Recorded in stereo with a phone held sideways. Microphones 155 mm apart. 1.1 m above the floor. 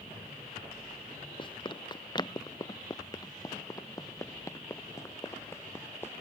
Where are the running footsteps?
30° left (ahead or behind); by 6.1 s 15° left (ahead or behind).